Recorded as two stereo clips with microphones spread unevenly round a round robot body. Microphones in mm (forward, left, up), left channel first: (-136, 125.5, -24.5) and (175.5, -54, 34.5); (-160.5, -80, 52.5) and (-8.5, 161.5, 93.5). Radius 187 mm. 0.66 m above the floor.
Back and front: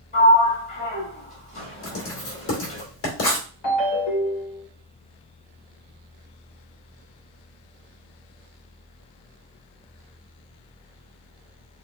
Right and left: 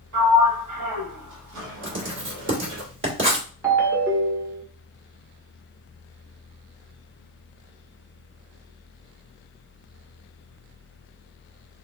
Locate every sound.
0.1 s a sliding door: 85° left, 1.8 m
1.8 s writing: 110° left, 2 m
3.6 s a ringtone: 140° left, 1.8 m